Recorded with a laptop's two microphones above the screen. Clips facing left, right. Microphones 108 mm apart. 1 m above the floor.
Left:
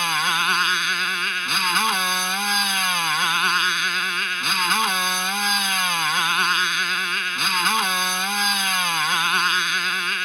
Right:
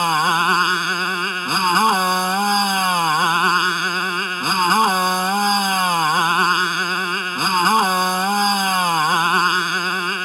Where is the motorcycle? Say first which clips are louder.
Right 6 dB; 35° right (ahead or behind).